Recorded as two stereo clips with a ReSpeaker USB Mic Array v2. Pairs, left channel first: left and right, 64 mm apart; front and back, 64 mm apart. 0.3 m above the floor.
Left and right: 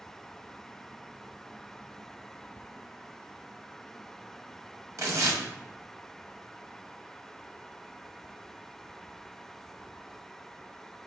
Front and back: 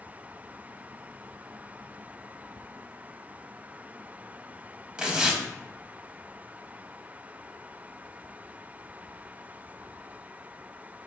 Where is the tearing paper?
110° right, 0.6 m.